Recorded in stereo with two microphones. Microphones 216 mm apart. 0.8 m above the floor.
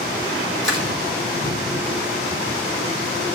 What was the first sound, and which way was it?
Crushing, 55° right (ahead or behind).